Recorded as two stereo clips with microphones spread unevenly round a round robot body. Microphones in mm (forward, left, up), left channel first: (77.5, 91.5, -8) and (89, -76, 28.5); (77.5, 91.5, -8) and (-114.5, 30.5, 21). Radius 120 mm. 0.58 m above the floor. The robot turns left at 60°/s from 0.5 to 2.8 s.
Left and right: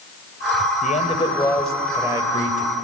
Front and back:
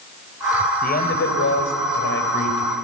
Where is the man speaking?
60° left, 3 m; by 2.7 s 55° right, 3 m.